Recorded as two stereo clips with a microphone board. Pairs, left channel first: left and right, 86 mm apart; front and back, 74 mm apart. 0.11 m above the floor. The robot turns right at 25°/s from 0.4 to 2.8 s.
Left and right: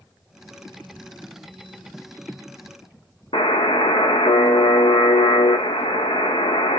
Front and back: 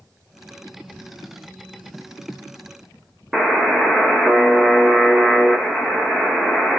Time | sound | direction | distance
3.3 | a buzzer | 95° left | 1.0 m